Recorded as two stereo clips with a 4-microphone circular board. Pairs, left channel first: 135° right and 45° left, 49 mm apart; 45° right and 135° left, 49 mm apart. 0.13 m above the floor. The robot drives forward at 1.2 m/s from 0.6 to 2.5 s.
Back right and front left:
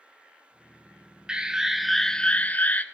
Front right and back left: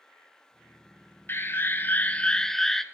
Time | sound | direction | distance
1.3 | an alarm | 20° right | 1.5 m